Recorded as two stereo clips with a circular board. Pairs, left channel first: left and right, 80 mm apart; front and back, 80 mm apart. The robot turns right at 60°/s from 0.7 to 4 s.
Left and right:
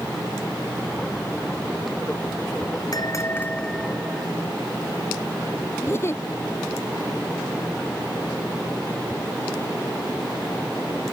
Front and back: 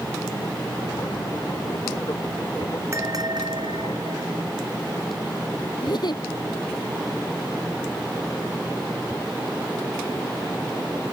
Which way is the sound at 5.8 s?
30° left.